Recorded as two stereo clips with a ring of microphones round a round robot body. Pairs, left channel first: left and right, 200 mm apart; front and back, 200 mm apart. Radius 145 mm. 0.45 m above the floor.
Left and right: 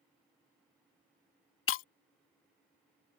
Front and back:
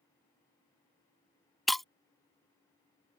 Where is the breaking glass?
90° left.